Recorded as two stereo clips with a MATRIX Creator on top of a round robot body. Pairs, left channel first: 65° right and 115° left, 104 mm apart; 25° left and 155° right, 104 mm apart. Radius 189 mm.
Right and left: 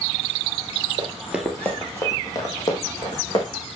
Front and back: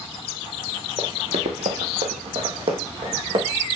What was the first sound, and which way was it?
Running footsteps, 155° left.